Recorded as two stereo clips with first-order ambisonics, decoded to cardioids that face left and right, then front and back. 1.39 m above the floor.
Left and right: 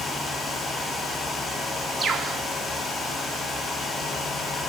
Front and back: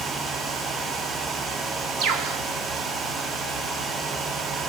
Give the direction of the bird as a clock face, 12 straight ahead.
5 o'clock.